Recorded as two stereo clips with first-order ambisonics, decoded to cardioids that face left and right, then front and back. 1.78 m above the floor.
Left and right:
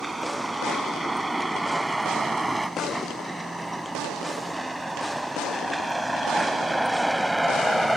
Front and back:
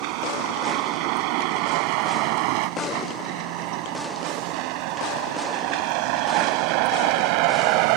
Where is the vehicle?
170° right; by 8.0 s 175° right.